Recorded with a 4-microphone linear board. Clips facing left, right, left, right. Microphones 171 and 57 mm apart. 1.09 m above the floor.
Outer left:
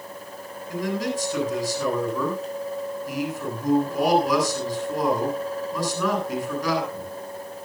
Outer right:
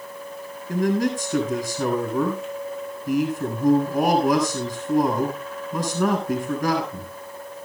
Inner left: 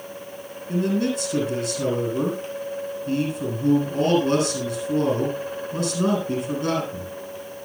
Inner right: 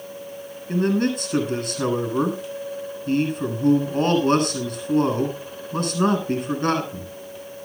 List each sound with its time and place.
0.7 s a man speaking: 55° right (ahead or behind), 7.5 m